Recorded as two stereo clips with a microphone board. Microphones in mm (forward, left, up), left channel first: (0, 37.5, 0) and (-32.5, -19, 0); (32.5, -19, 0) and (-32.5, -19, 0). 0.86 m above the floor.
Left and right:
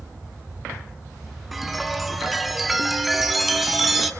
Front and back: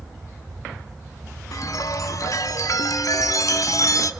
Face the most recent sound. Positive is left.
turn(degrees=-35)